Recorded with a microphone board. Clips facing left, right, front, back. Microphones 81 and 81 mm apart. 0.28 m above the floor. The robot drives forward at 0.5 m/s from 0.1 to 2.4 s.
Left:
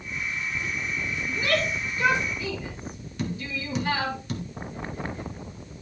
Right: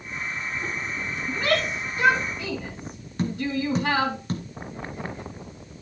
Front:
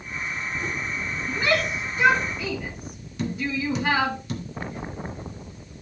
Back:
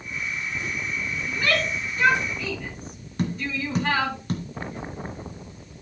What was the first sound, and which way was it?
A shout, 70° right.